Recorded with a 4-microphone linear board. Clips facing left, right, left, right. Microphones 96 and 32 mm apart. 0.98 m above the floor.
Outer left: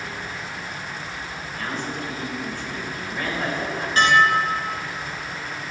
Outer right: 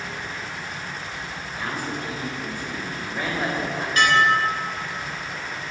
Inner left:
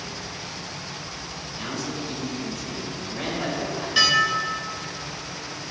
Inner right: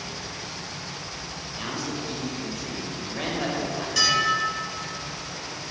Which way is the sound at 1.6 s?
10° right (ahead or behind).